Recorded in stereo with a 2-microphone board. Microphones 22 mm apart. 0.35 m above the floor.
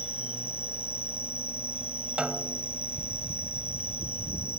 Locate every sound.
0.0 s an insect: 70° right (ahead or behind)
2.2 s a snare drum: 60° right (ahead or behind)